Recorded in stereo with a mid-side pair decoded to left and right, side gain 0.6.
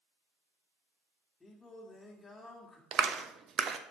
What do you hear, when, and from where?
1.4 s singing: 20° left, 1.9 m
2.9 s a clap: 45° right, 0.9 m